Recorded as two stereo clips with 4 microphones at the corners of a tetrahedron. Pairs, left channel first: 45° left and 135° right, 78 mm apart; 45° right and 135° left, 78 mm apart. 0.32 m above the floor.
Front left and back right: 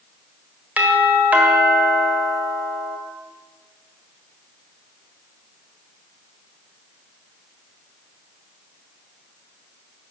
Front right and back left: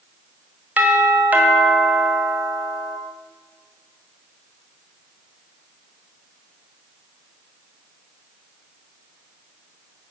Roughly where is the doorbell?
Behind.